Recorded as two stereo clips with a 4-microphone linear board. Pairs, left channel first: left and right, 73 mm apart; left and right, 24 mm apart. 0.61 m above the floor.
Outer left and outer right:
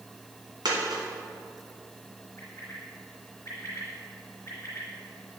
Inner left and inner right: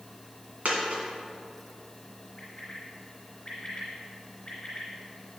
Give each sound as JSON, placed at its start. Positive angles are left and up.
{"t": 0.7, "sound": "a dropped coin", "side_deg": -85, "distance_m": 1.7}
{"t": 2.4, "sound": "a bird", "side_deg": 40, "distance_m": 2.5}